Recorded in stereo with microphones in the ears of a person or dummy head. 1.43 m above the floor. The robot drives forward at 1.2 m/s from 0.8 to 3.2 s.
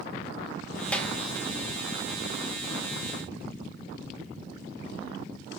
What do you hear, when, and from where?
0.9 s a clap: 5° left (ahead or behind), 1.4 m